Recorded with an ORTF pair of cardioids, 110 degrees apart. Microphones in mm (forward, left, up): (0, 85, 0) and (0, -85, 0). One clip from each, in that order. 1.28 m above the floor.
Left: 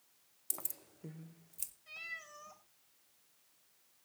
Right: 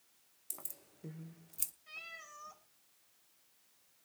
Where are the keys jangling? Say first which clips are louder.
Left 5 dB; 30° left, 0.7 m; by 1.7 s 25° right, 1.0 m.